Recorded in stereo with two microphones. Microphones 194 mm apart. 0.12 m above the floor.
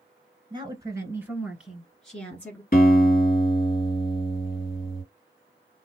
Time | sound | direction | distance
0.5 | a woman speaking | 25° right (ahead or behind) | 1.4 m
2.7 | a guitar | 50° left (ahead or behind) | 2.0 m